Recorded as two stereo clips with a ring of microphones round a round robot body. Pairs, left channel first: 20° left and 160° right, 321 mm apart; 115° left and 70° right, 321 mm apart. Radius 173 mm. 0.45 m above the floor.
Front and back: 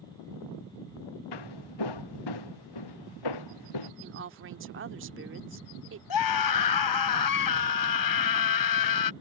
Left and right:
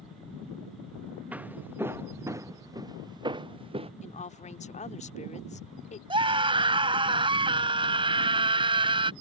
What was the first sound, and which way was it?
Footsteps, 20° left.